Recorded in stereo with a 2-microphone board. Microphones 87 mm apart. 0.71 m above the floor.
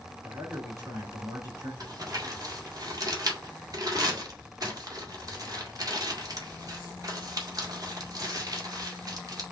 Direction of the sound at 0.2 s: 35° right (ahead or behind).